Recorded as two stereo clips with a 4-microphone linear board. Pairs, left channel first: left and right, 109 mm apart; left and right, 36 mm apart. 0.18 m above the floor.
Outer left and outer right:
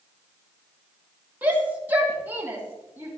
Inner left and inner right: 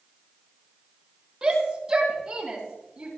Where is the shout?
15° right (ahead or behind), 5 m; by 3.1 s 20° right (ahead or behind), 6 m.